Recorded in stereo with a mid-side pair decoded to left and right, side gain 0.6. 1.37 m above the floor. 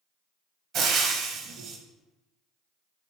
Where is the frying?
55° right, 0.7 m.